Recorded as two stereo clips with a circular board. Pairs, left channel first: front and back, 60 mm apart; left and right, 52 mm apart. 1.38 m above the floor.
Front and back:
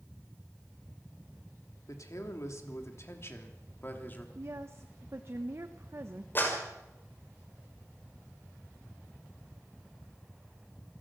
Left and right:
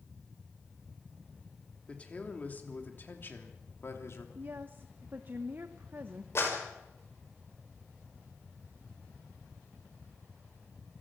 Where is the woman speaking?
135° right, 1.0 m.